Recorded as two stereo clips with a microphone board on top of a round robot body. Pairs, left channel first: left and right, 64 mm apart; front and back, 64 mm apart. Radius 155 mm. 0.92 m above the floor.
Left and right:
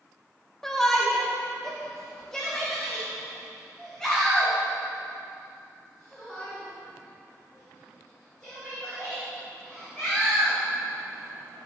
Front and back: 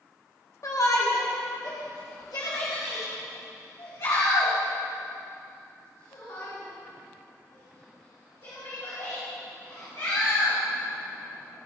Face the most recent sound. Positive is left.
turn(degrees=10)